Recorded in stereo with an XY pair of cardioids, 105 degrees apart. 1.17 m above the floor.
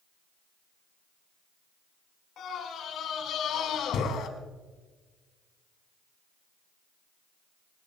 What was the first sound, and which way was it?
A scream, 65° left.